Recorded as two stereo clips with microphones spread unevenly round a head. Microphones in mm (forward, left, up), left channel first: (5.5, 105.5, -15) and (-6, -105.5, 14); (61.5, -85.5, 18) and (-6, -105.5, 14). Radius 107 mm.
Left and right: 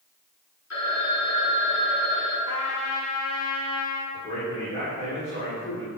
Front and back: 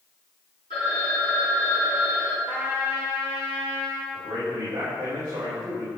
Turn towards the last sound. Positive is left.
turn(degrees=145)